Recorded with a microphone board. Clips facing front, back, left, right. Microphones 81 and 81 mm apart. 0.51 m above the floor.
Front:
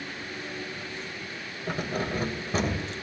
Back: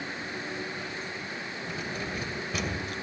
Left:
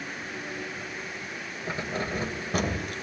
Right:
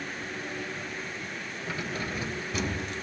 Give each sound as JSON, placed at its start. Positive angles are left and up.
{"t": 1.7, "sound": "keys jangling", "azimuth_deg": 30, "distance_m": 2.0}